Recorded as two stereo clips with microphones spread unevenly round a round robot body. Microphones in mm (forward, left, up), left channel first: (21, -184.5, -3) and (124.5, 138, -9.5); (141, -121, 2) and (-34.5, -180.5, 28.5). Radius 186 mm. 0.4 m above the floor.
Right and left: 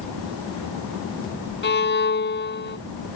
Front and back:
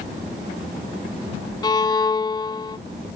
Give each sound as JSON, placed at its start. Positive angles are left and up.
{"t": 1.6, "sound": "a violin", "azimuth_deg": -50}